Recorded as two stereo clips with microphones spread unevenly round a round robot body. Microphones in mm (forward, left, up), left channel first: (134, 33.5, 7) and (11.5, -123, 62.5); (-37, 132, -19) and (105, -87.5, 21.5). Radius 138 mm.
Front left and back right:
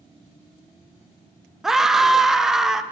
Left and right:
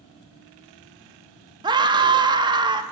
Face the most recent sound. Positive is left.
turn(degrees=10)